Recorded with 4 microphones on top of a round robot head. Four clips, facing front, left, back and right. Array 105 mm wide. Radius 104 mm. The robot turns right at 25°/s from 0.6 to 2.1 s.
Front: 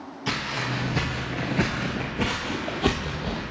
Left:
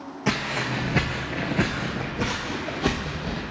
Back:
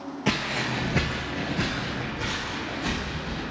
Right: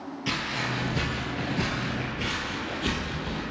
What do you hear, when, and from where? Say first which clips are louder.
0.3 s footsteps: left 5 dB, back 1 dB; 135° left, 0.8 m; by 3.4 s 25° left, 1.4 m